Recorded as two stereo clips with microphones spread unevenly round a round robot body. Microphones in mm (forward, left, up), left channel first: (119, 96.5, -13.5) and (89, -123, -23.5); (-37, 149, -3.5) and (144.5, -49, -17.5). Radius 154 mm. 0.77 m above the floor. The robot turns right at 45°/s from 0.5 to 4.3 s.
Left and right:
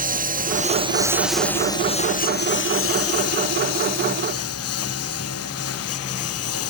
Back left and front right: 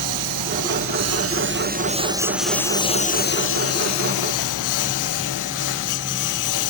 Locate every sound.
0.0 s a lawn mower: 45° right; by 6.7 s 125° left